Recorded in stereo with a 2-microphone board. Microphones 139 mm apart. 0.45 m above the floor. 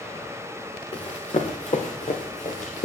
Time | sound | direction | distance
0.9 | running footsteps | 50° left (ahead or behind) | 2.5 m